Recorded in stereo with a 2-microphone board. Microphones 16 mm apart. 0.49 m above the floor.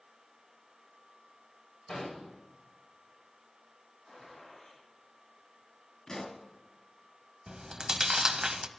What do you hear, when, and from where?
1.9 s an explosion: 55° left (ahead or behind), 8 m
4.0 s a gunshot: 30° left (ahead or behind), 9 m
6.1 s a pop: 35° left (ahead or behind), 2.0 m
7.5 s chewing: 45° right (ahead or behind), 0.6 m